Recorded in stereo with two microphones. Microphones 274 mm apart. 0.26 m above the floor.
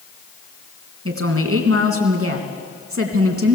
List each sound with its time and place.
1.1 s a woman speaking: 55° right (ahead or behind), 3 m